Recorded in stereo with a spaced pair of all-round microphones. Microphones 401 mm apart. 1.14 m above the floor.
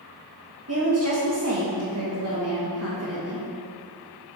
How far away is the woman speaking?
About 1.6 m.